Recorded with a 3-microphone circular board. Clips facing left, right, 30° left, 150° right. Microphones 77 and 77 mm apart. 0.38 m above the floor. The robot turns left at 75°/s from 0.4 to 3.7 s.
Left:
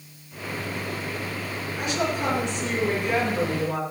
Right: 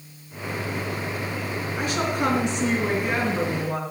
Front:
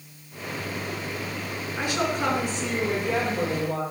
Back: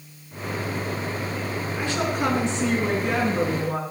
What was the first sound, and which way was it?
A woman speaking, 35° right.